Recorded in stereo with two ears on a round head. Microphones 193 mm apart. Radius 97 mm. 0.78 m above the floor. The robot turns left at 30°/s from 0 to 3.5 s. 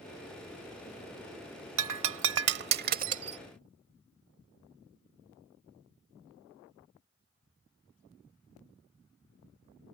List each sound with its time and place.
1.8 s breaking glass: 65° right (ahead or behind); by 3.4 s 30° right (ahead or behind)